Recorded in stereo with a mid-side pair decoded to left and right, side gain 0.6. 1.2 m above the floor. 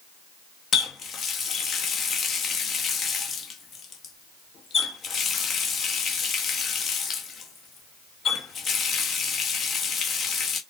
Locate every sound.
0.7 s a running tap: 45° left, 1.0 m